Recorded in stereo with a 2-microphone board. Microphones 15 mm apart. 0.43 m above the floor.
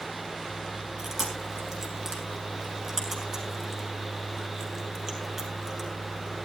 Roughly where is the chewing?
Centre.